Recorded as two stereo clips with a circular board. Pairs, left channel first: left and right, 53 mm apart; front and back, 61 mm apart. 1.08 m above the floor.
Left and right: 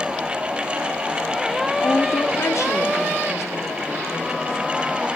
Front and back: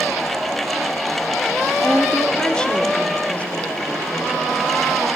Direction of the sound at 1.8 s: 85° left.